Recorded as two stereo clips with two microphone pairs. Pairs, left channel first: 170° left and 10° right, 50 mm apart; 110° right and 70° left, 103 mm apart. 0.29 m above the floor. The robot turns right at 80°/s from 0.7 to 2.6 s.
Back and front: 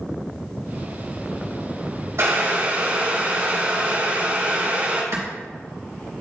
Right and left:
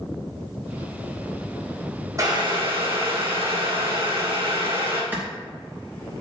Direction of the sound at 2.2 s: 10° left.